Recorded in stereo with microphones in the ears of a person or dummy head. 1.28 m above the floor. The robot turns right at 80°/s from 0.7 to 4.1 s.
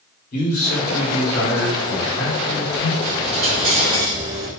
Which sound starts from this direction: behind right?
A dropped coin, at 3.0 s.